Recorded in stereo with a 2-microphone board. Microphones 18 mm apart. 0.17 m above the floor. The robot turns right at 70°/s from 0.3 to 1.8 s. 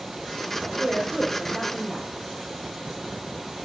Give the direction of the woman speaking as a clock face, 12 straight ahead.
2 o'clock.